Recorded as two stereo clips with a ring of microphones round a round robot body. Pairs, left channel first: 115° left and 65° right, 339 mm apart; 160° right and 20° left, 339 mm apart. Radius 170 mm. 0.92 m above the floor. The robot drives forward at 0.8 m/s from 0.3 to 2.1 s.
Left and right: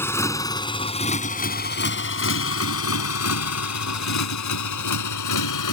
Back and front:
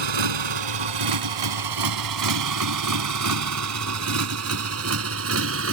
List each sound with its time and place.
0.0 s a motorcycle: 30° left; by 5.7 s 75° left